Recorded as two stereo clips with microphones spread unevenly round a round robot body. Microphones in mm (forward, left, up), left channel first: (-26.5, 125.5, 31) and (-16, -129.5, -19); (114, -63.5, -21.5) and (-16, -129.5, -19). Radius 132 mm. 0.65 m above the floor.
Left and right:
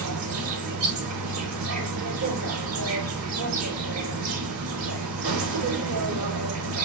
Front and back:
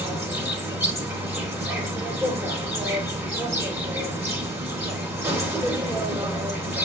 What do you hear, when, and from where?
0.0 s an insect: 80° right, 3.5 m